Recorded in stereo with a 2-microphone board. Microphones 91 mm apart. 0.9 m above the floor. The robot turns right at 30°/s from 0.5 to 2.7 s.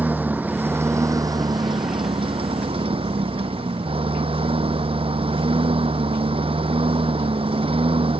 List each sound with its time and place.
0.0 s a lawn mower: 160° right; by 8.2 s 95° right